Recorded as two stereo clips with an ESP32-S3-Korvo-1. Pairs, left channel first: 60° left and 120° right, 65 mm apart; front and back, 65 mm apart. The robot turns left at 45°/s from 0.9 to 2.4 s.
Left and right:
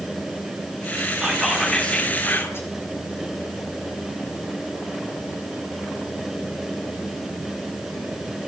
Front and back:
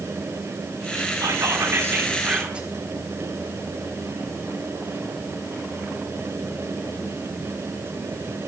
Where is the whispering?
160° left, 4.5 m; by 2.7 s 110° left, 4.5 m.